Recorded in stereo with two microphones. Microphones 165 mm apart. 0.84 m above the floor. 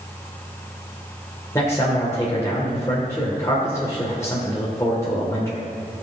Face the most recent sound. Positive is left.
turn(degrees=20)  # may be behind; listen again after turning